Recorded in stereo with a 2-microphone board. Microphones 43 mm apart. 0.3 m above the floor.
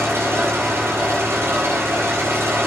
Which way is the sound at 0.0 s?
75° right (ahead or behind).